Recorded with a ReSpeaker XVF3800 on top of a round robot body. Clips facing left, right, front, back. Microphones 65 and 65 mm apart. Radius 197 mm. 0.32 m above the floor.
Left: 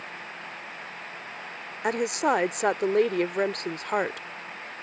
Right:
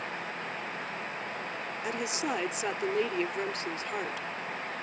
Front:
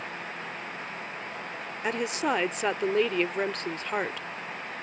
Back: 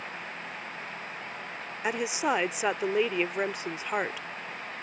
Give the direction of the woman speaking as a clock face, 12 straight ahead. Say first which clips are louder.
Left 9 dB, even; 9 o'clock.